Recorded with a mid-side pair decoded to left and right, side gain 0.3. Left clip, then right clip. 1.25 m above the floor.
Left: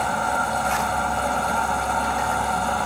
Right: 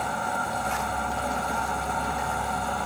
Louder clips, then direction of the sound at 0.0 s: Left 5 dB; 50° left.